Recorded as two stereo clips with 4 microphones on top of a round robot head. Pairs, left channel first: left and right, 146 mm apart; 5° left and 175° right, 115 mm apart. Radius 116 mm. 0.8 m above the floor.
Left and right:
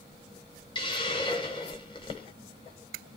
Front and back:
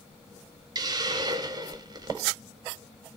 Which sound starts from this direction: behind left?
A hiss, at 0.8 s.